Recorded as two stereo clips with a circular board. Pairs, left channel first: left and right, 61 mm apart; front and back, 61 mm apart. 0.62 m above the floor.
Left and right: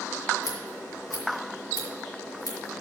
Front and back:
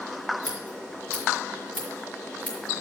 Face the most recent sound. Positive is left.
turn(degrees=65)